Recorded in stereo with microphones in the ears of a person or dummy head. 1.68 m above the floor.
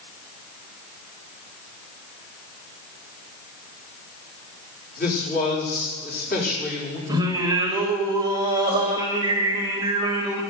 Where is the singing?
25° right (ahead or behind), 1.9 m.